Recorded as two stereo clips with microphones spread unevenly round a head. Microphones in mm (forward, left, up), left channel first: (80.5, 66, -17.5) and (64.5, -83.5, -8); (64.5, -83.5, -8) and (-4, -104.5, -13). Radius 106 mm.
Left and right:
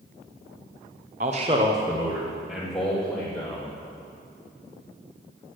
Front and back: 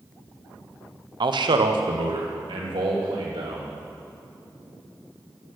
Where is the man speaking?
150° right, 1.0 m; by 3.7 s 165° left, 3 m.